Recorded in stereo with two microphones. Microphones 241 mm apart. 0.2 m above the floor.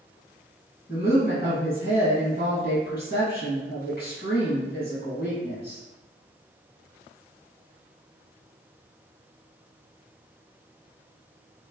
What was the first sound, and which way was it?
A woman speaking, 45° left (ahead or behind).